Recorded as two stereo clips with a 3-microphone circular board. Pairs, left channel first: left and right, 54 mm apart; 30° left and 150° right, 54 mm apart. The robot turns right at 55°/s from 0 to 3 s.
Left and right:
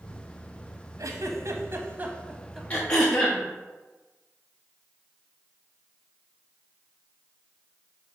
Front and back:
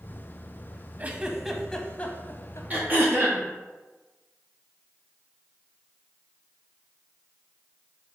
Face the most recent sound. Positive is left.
turn(degrees=170)